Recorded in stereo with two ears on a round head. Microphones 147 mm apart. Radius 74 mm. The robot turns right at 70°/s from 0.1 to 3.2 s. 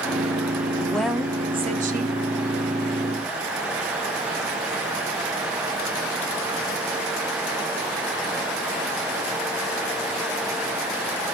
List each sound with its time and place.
0.8 s a woman speaking: 160° left, 1.0 m; by 2.2 s 100° right, 1.0 m